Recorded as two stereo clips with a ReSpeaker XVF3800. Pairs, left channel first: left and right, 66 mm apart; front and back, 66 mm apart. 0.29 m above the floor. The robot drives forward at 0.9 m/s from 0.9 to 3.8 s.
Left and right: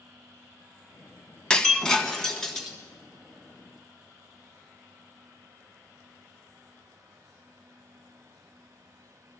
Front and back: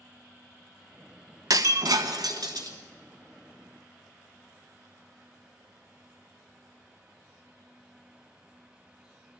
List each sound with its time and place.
1.5 s breaking glass: 165° left, 0.7 m; by 2.8 s 175° left, 1.7 m